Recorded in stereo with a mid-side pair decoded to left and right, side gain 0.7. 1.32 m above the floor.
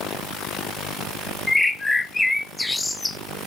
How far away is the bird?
About 0.6 m.